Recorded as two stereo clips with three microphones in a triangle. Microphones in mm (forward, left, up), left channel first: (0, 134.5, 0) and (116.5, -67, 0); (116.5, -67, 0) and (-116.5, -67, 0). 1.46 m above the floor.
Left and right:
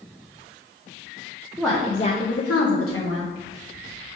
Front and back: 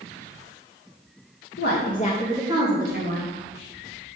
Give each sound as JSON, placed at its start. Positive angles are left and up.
{"t": 1.6, "sound": "a woman speaking", "azimuth_deg": 30, "distance_m": 0.9}